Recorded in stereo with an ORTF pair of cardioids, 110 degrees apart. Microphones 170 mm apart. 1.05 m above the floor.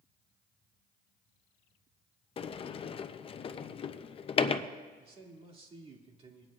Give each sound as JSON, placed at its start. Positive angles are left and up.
{"t": 2.4, "sound": "a sliding door", "azimuth_deg": 35, "distance_m": 0.5}
{"t": 5.0, "sound": "a man speaking", "azimuth_deg": -35, "distance_m": 2.5}